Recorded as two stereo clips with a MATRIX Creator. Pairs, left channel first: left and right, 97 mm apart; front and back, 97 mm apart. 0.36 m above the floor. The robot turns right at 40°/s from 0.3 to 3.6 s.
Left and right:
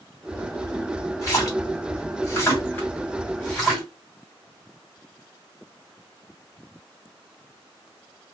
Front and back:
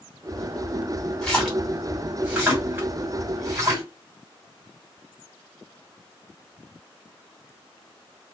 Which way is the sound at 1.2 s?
75° left.